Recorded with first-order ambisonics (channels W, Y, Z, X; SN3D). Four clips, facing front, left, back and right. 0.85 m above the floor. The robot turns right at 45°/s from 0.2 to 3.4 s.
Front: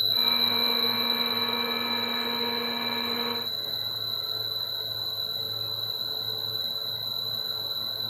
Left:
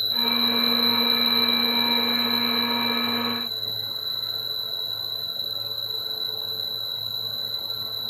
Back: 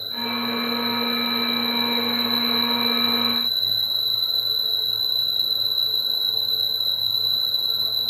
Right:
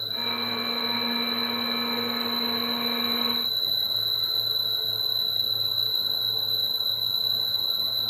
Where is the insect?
45° left, 3.5 m; by 8.1 s 170° right, 3.5 m.